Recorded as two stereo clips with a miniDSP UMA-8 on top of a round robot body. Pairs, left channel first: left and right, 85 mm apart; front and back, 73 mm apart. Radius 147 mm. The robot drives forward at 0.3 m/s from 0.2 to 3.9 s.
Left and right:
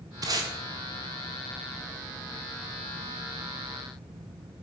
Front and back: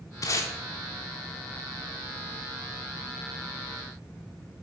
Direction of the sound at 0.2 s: 40° right.